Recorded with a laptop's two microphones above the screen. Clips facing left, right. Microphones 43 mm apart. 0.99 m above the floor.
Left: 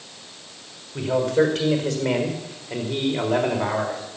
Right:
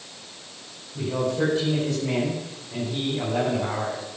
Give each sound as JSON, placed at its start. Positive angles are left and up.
{"t": 0.9, "sound": "a man speaking", "side_deg": 80, "distance_m": 4.5}